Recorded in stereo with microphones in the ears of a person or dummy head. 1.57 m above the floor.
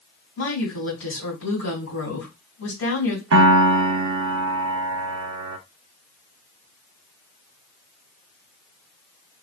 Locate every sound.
0.4 s a woman speaking: 70° left (ahead or behind), 2.0 m
3.3 s a piano: 60° right (ahead or behind), 0.5 m